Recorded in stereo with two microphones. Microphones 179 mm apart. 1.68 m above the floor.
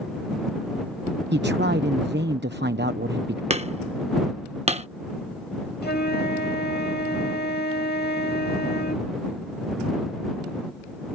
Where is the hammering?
35° right (ahead or behind).